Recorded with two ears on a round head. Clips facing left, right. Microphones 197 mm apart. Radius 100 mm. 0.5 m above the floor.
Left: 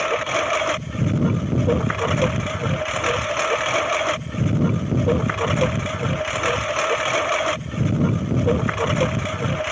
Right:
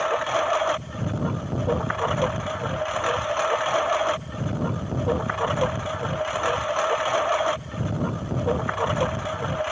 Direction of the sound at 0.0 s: 35° left (ahead or behind).